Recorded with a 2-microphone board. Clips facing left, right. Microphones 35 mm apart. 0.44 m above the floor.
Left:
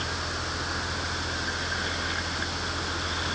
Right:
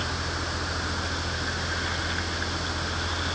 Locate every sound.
Only background noise.